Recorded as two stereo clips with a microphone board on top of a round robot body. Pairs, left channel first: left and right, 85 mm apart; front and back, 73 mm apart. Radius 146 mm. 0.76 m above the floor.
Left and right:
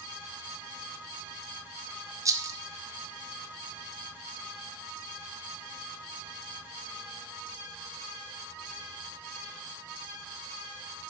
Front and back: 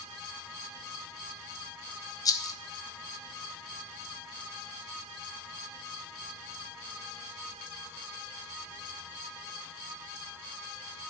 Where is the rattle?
40° right, 1.0 m.